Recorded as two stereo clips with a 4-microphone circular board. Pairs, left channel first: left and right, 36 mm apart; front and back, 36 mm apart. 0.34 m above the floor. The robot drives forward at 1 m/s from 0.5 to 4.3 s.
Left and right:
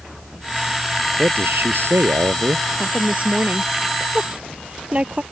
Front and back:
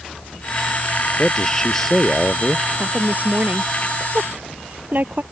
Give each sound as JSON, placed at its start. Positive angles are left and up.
{"t": 1.2, "sound": "a man speaking", "azimuth_deg": -75}
{"t": 2.8, "sound": "a woman speaking", "azimuth_deg": -135}